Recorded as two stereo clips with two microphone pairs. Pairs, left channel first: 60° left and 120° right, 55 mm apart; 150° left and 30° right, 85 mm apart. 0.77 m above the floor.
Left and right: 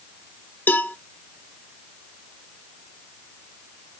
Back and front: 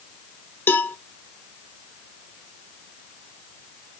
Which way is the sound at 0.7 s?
95° left.